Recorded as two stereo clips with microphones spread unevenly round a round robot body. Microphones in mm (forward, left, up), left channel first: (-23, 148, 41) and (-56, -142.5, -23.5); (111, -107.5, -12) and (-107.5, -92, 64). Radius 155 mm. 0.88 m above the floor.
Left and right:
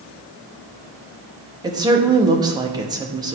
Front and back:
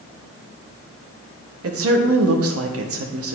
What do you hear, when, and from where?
1.6 s a woman speaking: 165° right, 1.3 m